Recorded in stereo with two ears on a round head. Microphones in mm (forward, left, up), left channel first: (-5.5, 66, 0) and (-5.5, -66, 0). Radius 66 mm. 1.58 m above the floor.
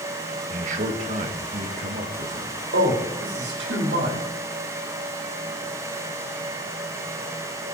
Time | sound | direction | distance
0.5 | a man speaking | 55° right (ahead or behind) | 2 m
2.7 | a man speaking | 85° right | 4 m